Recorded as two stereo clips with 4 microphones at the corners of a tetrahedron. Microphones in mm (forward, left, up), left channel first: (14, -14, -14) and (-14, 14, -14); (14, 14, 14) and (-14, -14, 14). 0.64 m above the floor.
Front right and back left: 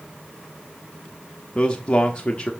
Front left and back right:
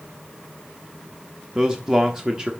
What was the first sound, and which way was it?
A man speaking, 85° right.